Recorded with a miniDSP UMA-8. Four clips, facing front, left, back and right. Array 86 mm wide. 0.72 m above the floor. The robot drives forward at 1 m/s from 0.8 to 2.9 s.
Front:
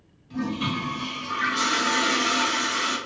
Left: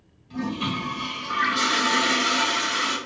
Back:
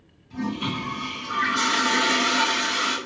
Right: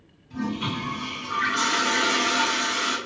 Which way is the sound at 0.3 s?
55° left.